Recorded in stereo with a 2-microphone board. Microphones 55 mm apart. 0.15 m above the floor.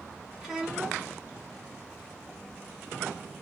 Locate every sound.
0.4 s a child speaking: 10° right (ahead or behind), 1.1 m